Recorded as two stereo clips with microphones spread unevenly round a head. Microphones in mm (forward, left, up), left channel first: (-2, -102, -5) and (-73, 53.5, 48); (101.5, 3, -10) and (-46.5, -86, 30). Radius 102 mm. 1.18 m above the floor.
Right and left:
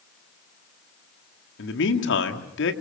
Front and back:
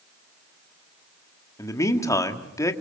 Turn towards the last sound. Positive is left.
turn(degrees=-45)